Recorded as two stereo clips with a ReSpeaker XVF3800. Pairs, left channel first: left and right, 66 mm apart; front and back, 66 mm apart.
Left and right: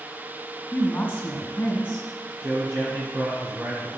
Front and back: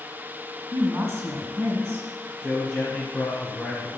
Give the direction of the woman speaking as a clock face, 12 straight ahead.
7 o'clock.